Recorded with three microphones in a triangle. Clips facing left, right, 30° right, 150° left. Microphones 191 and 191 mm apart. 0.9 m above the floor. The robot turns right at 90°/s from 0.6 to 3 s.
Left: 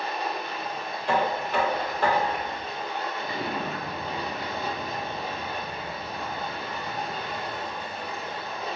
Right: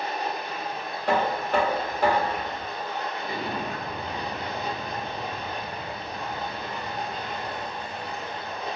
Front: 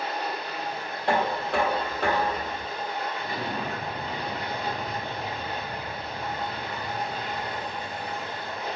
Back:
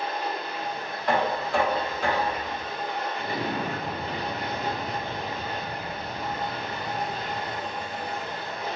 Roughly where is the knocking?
Right.